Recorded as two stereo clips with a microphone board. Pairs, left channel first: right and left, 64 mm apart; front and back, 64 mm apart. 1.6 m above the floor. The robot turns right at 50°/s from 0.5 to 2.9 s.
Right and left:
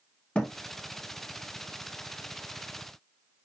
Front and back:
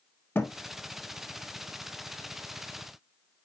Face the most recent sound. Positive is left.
turn(degrees=95)